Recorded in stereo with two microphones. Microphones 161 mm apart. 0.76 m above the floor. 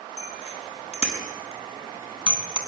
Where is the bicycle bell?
45° left (ahead or behind), 6 m; by 2.6 s 35° left (ahead or behind), 4.5 m.